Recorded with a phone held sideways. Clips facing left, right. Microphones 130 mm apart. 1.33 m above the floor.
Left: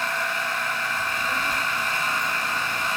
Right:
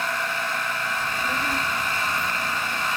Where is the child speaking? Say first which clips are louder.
Right 1 dB; 45° right (ahead or behind), 3.5 m; by 2.9 s 5° left (ahead or behind), 1.6 m.